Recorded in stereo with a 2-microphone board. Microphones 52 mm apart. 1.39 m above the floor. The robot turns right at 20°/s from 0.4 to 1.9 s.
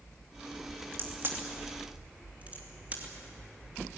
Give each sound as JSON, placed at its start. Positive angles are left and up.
{"t": 0.9, "sound": "a crack", "side_deg": -45, "distance_m": 2.5}